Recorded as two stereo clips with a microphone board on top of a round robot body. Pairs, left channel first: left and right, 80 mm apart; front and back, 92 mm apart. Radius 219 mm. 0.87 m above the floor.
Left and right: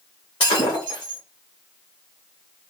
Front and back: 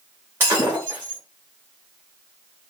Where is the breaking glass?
110° left, 0.7 m.